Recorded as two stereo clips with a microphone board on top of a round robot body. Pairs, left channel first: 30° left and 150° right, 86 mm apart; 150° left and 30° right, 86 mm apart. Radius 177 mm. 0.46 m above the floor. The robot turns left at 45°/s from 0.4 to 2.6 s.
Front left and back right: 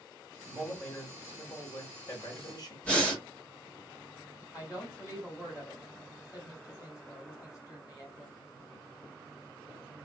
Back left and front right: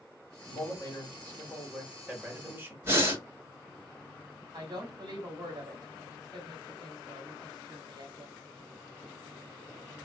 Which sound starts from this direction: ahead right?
Breathing, at 2.8 s.